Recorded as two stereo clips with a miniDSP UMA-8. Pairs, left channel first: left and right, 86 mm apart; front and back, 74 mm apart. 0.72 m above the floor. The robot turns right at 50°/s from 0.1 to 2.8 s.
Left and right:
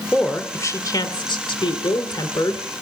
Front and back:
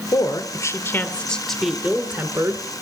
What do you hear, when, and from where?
0.1 s a woman speaking: 20° left, 2.5 m; by 2.6 s 145° left, 2.5 m